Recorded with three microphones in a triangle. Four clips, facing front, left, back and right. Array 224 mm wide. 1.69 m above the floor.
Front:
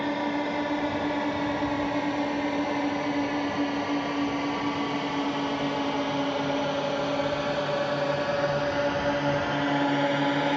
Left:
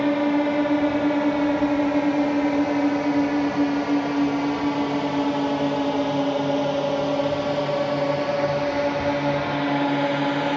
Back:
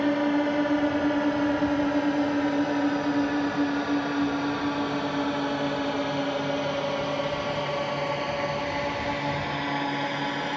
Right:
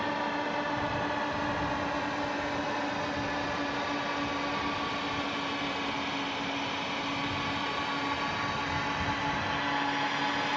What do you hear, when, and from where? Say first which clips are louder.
0.0 s a drone: left 11 dB, back 4 dB; 115° left; by 10.6 s 60° left